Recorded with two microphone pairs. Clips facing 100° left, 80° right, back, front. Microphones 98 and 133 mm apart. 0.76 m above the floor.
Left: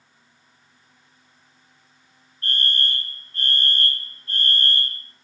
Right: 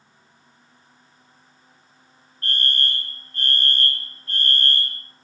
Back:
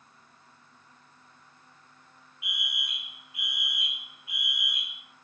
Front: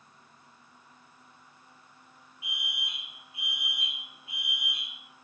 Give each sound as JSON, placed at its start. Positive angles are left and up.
{"t": 2.4, "sound": "a fire alarm", "azimuth_deg": -55, "distance_m": 2.5}